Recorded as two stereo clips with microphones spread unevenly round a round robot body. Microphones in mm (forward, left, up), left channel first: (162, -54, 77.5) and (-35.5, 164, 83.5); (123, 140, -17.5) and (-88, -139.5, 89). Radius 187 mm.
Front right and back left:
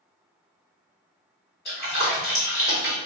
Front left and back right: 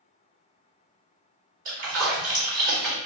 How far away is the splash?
About 1.8 m.